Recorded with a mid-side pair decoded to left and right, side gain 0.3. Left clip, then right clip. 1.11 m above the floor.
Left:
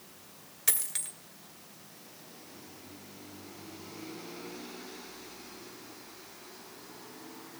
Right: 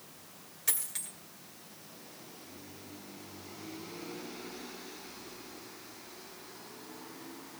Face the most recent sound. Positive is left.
turn(degrees=55)